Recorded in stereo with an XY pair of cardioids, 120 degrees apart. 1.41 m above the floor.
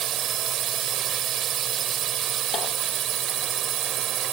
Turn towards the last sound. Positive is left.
turn(degrees=-55)